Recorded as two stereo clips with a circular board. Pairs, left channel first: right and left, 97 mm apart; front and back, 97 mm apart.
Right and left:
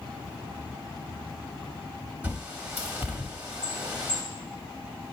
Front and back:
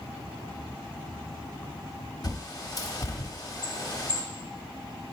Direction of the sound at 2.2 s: 25° left.